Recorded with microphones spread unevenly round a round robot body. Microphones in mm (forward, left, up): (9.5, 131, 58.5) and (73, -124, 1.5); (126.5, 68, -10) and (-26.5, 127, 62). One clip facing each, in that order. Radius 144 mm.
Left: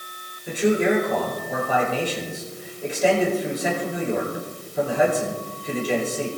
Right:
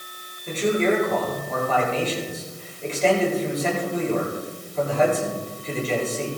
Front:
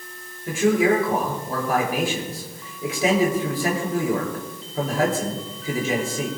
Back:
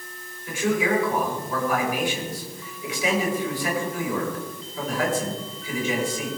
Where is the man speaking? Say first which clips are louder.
Left 1 dB, front 5 dB; 25° left, 9.5 m.